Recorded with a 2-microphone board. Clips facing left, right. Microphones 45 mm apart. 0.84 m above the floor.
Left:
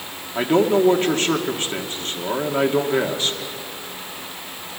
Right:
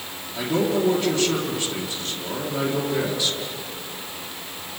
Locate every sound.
0.3 s a man speaking: 40° left (ahead or behind), 2 m